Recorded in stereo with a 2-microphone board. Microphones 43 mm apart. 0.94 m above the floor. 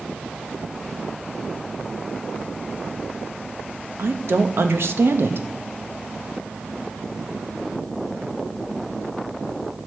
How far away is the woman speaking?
About 0.8 m.